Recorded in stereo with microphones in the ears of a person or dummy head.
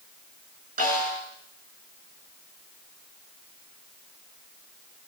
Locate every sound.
0.8 s a snare drum: 50° right (ahead or behind), 7 m